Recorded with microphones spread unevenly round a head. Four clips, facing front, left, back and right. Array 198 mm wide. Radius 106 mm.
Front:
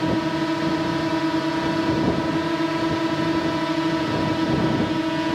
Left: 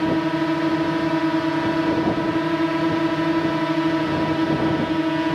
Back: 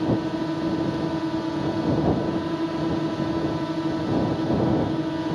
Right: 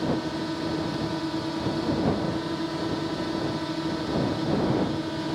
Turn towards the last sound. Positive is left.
turn(degrees=75)